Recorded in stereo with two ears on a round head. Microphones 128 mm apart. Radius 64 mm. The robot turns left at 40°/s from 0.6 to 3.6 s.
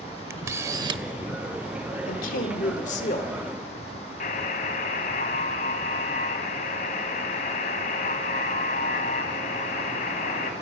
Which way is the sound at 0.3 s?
20° right (ahead or behind).